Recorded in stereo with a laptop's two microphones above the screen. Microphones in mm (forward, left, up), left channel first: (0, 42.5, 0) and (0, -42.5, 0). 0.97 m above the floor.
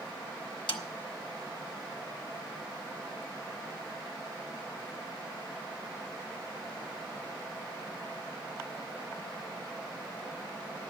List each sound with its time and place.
0.7 s a snare drum: 75° left (ahead or behind), 1.2 m